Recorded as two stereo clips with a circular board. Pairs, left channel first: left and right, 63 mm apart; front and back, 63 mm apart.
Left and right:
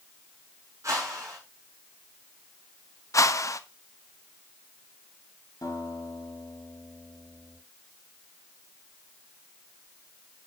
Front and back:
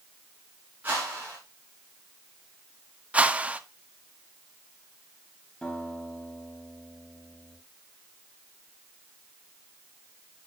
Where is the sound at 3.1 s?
115° left, 0.6 m.